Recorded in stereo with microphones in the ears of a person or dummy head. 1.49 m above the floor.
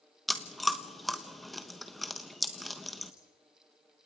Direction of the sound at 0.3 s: Centre (ahead or behind).